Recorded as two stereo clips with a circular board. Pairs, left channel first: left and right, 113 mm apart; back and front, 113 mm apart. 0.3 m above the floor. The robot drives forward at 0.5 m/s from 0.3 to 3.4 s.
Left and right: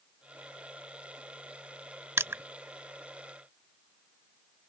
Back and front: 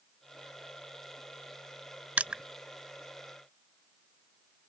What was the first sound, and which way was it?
Crushing, 60° right.